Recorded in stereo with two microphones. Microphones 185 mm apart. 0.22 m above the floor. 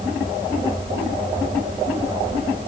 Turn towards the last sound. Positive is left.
No sound to turn to.